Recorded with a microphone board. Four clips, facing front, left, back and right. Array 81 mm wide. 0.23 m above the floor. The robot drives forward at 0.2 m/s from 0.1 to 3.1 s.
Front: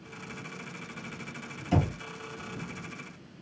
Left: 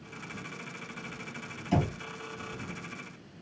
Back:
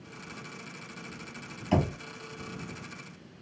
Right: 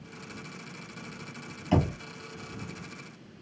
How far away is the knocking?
About 1.5 m.